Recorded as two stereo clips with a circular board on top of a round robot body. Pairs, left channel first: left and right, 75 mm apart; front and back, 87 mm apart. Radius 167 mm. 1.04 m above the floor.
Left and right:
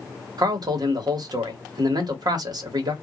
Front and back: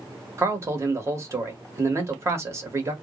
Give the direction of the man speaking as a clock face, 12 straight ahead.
4 o'clock.